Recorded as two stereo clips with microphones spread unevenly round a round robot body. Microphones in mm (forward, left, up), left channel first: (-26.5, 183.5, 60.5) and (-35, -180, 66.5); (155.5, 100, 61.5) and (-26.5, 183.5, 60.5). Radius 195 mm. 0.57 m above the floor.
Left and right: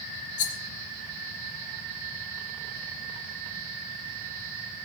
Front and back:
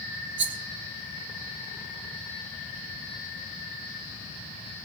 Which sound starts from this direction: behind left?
A rattle, at 0.4 s.